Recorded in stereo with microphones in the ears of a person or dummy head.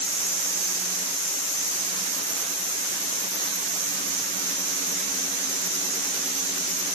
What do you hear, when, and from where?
Only background noise.